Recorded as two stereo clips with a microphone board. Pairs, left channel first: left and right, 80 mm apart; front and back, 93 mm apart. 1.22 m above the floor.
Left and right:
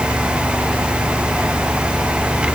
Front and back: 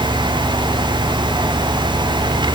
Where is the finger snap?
I don't hear a finger snap.